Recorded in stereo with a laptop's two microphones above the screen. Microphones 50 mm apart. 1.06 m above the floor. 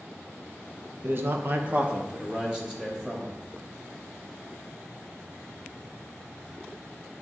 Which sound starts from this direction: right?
A man speaking, at 1.0 s.